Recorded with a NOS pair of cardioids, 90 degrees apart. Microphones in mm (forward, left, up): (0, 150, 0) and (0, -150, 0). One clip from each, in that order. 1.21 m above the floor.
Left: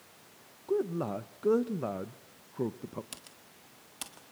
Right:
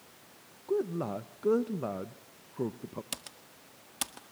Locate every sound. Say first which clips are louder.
0.7 s a man speaking: even; 5° left, 0.9 m
3.1 s typing on a keyboard: right 6 dB; 40° right, 1.8 m